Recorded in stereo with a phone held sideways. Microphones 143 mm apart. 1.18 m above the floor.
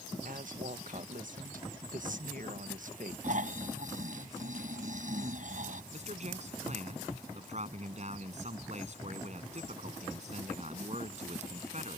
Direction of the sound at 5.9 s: 50° right (ahead or behind).